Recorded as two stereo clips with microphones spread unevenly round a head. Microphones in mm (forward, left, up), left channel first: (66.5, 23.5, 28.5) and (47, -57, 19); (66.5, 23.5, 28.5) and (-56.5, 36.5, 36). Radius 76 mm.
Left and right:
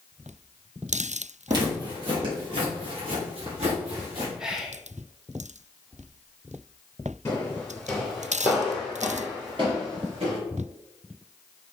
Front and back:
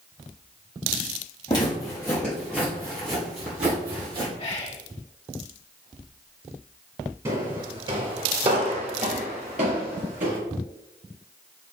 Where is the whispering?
25° right, 0.9 m.